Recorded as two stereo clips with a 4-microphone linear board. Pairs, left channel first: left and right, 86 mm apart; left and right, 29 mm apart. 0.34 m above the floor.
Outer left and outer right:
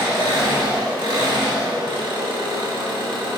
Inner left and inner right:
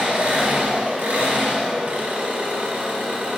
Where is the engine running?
80° right, 0.7 m.